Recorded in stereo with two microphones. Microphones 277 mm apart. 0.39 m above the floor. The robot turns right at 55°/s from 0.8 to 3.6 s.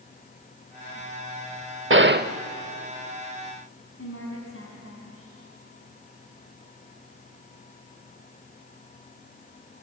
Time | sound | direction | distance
1.9 | a gunshot | 45° right (ahead or behind) | 0.6 m
4.0 | a woman speaking | 50° left (ahead or behind) | 3.5 m